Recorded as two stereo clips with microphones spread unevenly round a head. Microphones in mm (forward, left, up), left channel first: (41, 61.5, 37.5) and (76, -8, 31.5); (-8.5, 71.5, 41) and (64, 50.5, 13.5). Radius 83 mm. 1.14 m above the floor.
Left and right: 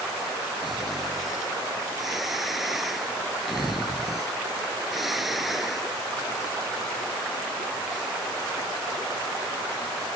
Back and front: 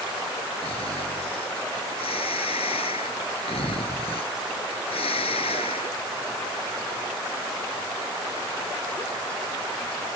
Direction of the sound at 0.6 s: 150° right.